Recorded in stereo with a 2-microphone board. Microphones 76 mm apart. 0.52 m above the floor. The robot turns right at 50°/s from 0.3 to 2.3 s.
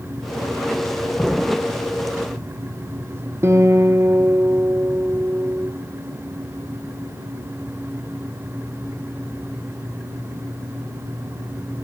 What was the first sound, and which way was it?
An explosion, centre (ahead or behind).